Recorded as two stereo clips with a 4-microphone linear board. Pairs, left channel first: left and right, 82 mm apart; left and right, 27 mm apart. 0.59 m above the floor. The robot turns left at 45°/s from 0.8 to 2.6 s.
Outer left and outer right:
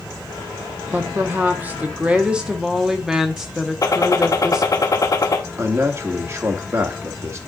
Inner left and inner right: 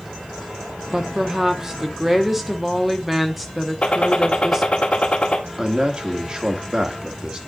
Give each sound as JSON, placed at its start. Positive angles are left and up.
{"t": 0.9, "sound": "a woman speaking", "side_deg": -25, "distance_m": 0.8}
{"t": 3.8, "sound": "a gunshot", "side_deg": 50, "distance_m": 1.2}
{"t": 5.6, "sound": "a man speaking", "side_deg": -35, "distance_m": 1.1}